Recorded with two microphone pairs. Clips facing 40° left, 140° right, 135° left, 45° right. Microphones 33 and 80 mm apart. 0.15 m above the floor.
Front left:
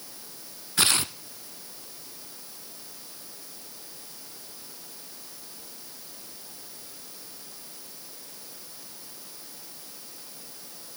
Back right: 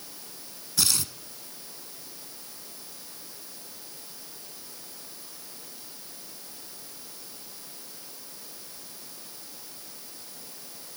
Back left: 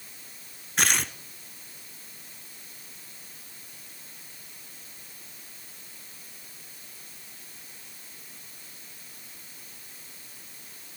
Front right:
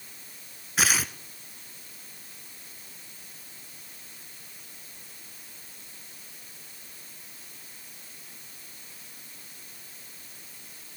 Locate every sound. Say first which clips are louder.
0.8 s tearing paper: front left 4 dB, even; 40° left, 0.8 m